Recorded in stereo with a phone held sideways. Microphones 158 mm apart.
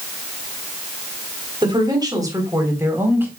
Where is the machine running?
I don't hear a machine running.